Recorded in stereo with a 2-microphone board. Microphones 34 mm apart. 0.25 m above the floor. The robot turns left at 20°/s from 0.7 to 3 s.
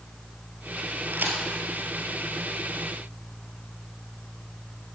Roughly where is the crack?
Right.